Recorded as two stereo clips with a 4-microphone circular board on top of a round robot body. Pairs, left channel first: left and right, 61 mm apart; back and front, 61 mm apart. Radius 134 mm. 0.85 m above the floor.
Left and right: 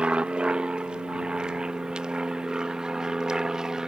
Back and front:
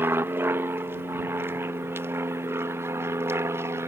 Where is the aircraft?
25° right; by 3.9 s 15° right.